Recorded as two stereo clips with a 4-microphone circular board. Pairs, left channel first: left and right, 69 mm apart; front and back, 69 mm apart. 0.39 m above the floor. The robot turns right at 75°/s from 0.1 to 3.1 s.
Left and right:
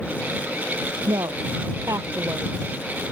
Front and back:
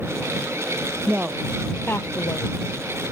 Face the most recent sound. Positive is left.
turn(degrees=35)